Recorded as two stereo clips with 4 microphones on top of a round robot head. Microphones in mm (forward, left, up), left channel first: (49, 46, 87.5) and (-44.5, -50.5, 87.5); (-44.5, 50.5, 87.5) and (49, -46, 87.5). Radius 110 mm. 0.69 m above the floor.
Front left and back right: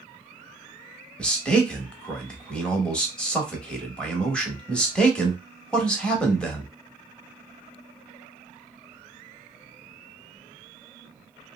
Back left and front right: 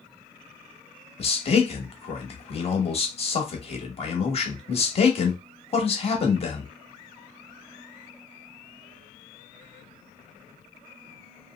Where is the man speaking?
125° left, 1.2 m.